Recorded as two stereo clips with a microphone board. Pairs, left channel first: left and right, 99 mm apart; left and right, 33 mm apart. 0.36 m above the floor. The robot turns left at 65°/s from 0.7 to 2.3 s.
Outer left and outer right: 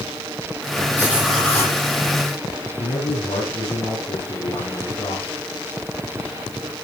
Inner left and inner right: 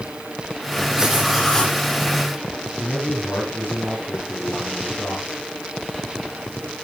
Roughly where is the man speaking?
Left.